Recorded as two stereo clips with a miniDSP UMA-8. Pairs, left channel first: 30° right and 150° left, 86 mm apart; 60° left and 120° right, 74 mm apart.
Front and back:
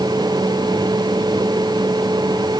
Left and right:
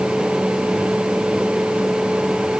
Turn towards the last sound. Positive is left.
No sound to turn to.